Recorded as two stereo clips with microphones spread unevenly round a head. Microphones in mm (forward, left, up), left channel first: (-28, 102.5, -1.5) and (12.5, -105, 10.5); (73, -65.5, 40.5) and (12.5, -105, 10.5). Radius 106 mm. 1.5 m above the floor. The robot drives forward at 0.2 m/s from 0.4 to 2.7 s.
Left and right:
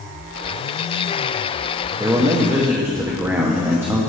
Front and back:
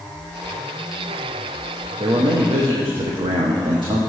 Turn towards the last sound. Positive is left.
turn(degrees=-155)